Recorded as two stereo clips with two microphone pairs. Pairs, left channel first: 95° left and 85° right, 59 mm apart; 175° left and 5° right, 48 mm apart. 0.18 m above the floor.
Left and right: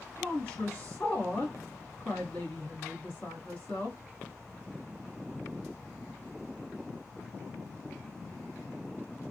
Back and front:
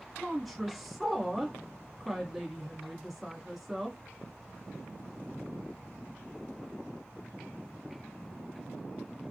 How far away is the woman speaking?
About 1.5 m.